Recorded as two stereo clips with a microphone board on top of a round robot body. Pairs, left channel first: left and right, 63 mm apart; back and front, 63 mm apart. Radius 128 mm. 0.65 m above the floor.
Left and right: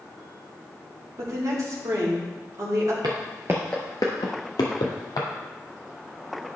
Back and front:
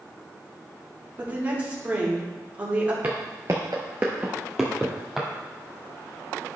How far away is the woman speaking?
About 2 m.